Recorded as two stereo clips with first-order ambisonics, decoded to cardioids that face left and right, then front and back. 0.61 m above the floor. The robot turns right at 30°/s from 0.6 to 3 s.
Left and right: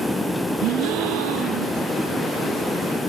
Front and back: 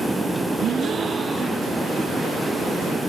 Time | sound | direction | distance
0.6 | a gasp | 125° right | ?